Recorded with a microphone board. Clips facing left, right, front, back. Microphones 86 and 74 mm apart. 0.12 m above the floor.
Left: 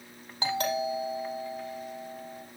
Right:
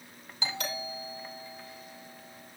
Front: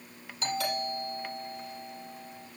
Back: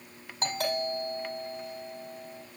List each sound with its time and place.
0.4 s a doorbell: 130° left, 5.5 m